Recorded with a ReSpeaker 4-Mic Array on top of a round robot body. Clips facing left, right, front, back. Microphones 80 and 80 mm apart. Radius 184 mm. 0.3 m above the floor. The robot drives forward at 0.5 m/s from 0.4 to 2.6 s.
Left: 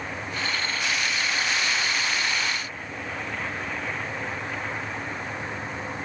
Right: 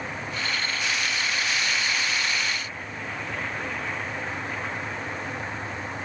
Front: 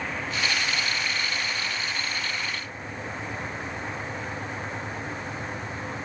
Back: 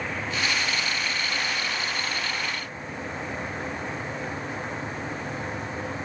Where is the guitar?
No guitar in this recording.